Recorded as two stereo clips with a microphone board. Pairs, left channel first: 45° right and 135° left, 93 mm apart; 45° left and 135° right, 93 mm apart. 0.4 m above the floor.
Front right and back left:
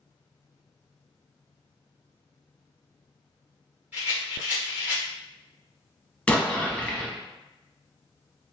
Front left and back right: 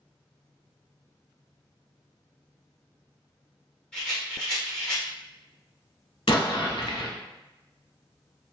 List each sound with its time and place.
3.9 s a rattle: 115° left, 1.4 m
6.3 s an explosion: 30° left, 0.7 m